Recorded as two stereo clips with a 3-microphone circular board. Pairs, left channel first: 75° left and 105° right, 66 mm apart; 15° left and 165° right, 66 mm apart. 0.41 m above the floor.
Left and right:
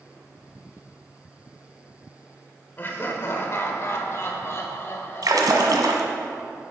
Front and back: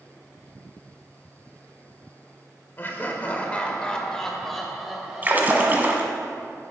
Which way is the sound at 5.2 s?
105° right.